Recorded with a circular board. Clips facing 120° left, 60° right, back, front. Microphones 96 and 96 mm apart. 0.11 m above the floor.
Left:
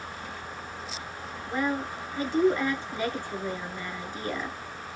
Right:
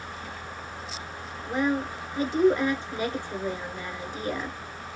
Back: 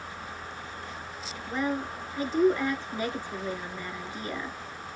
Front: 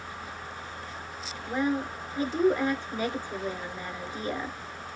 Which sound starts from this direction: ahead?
A woman speaking, at 1.5 s.